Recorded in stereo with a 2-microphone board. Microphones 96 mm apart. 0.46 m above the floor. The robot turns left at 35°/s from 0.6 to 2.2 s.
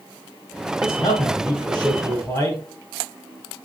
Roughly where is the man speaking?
Left.